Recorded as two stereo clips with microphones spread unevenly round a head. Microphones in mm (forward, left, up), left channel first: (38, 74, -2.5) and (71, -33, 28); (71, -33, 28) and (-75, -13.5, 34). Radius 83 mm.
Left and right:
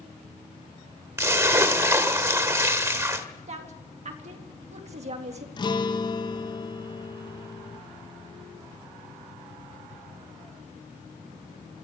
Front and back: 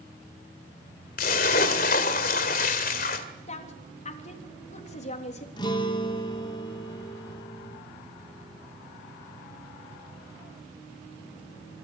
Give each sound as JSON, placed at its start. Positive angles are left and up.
{"t": 1.2, "sound": "a splash", "azimuth_deg": -25, "distance_m": 1.9}
{"t": 3.5, "sound": "a woman speaking", "azimuth_deg": -50, "distance_m": 3.0}
{"t": 5.6, "sound": "a guitar", "azimuth_deg": 55, "distance_m": 2.0}